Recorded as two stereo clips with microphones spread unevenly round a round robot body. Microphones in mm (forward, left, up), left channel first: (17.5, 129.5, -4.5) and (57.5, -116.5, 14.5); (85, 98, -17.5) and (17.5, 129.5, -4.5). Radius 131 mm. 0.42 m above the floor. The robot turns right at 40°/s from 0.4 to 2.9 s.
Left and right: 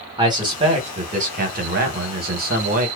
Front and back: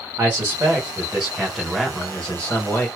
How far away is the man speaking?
About 0.9 m.